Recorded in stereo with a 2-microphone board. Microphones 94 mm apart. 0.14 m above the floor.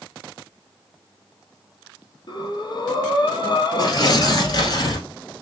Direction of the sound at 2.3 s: 50° left (ahead or behind).